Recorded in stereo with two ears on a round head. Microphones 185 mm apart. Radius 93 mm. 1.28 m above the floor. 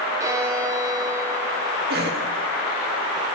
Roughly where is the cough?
Right.